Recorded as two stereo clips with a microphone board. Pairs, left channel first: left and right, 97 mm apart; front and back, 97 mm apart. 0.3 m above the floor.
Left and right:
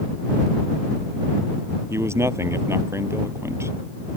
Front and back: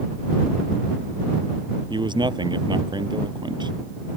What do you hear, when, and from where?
1.9 s a man speaking: 150° right